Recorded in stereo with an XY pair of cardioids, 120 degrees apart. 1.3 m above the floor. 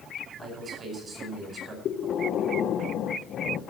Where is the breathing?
55° left, 0.7 m.